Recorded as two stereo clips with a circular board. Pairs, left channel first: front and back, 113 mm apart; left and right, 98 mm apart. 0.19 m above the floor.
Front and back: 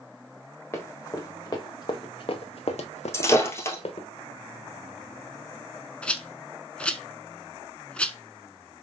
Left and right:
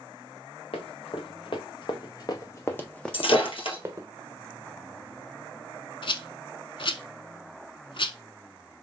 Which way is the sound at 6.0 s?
80° left.